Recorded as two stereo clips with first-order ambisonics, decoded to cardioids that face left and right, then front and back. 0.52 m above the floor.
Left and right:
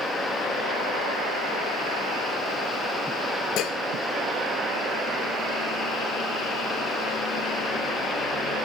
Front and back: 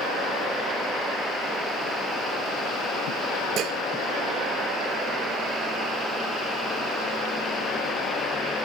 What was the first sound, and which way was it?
Dishes clattering, 130° left.